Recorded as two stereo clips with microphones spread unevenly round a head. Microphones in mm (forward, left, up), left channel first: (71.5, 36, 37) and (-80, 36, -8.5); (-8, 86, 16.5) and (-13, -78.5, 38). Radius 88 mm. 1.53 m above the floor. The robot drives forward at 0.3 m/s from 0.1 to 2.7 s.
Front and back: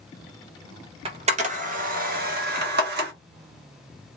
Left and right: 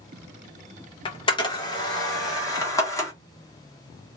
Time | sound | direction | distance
1.1 | a camera shutter | 130° left | 0.7 m